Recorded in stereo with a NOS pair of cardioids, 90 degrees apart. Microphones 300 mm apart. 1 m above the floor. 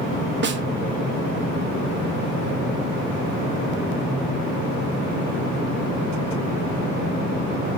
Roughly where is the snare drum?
Ahead right.